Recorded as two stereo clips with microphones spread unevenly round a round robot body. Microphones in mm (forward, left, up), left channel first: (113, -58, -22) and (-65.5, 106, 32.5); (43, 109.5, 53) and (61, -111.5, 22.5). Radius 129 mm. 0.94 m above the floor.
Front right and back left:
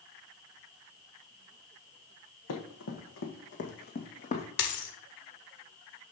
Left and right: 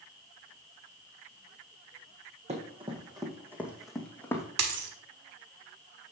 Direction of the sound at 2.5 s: 25° right.